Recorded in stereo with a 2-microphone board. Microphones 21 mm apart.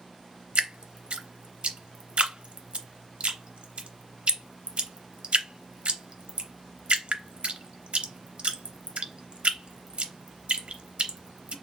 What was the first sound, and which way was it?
Dripping, 65° right (ahead or behind).